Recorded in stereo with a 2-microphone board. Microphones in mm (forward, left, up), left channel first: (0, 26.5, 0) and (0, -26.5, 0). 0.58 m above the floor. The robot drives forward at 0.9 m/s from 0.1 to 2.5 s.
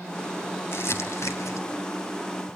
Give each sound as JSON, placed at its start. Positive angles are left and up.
{"t": 0.7, "sound": "crumpling", "side_deg": 55, "distance_m": 2.5}